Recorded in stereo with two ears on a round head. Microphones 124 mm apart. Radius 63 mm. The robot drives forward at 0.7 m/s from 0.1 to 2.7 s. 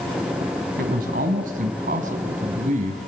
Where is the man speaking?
70° right (ahead or behind), 4.5 m; by 3.1 s 60° right (ahead or behind), 5 m.